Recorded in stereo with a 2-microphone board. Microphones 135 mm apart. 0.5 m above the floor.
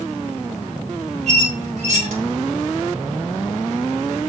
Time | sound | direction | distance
1.3 | a squeak | 55° right (ahead or behind) | 1.3 m